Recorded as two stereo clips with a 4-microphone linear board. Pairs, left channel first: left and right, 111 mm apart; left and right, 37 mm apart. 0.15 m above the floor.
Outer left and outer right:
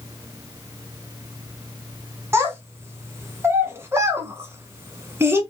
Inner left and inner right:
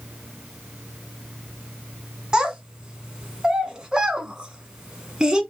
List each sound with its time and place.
2.3 s a child speaking: 20° right (ahead or behind), 0.9 m